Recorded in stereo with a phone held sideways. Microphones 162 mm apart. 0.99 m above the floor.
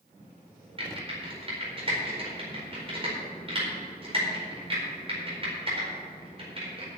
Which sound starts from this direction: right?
Typing on a keyboard, at 0.8 s.